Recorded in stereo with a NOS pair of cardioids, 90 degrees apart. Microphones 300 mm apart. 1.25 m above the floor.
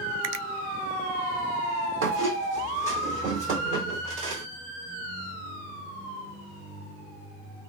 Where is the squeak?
45° right, 2 m.